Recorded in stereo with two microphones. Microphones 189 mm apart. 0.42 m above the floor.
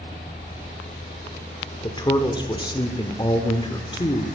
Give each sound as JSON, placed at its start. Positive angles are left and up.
{"t": 1.8, "sound": "a woman speaking", "side_deg": 20, "distance_m": 1.0}